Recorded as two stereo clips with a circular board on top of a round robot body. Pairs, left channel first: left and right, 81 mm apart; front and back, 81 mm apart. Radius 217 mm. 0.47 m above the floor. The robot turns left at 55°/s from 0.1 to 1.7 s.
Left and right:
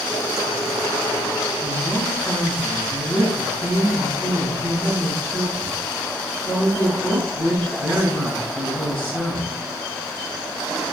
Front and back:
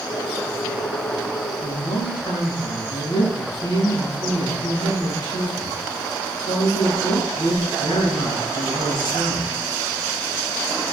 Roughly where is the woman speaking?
Ahead.